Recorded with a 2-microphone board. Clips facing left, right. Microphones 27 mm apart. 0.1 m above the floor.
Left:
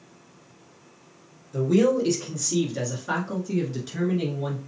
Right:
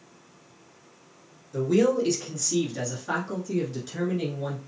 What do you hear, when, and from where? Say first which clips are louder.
1.5 s a man speaking: left 1 dB; 5° right (ahead or behind), 1.9 m; by 4.6 s 15° left (ahead or behind), 1.9 m